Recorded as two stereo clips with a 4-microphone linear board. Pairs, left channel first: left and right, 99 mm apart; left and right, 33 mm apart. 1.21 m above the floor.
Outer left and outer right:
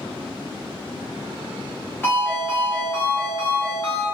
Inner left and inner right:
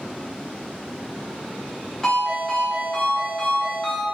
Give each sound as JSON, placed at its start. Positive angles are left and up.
{"t": 2.0, "sound": "a ringtone", "side_deg": 20, "distance_m": 1.3}